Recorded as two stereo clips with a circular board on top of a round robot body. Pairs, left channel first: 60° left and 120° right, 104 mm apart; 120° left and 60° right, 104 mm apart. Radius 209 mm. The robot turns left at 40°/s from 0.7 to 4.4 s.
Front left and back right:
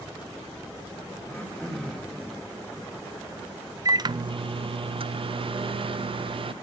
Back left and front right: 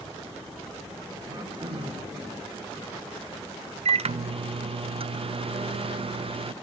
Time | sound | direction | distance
1.2 | throat clearing | 5° right | 2.5 m
3.9 | a microwave | 65° right | 0.5 m